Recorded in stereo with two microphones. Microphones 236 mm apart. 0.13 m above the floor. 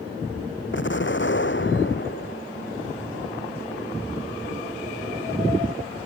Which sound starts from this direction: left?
An explosion, at 0.7 s.